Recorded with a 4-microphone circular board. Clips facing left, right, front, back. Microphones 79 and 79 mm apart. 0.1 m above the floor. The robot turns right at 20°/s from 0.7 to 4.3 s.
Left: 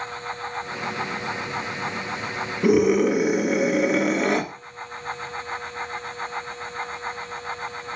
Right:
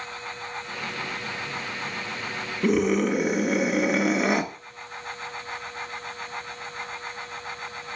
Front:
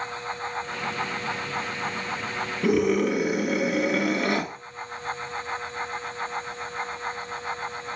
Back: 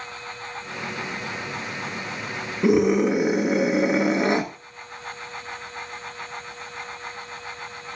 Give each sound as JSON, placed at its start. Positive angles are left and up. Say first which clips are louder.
{"t": 2.6, "sound": "a scream", "louder": "left 4 dB, back 4 dB", "azimuth_deg": 160, "distance_m": 1.6}